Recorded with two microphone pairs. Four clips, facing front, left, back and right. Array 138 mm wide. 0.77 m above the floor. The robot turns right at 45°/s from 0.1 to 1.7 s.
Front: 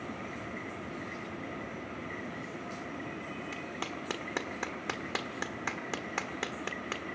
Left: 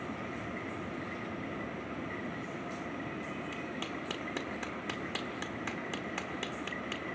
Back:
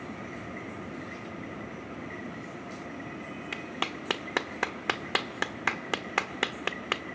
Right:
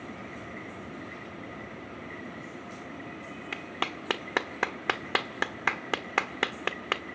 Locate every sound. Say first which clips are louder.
3.5 s a clap: right 4 dB, back 3 dB; 120° right, 1.5 m